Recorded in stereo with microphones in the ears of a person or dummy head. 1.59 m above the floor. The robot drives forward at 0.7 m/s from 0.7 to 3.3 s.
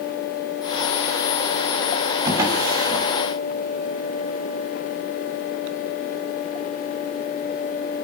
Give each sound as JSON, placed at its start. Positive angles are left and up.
{"t": 2.2, "sound": "a drawer", "side_deg": -25, "distance_m": 3.5}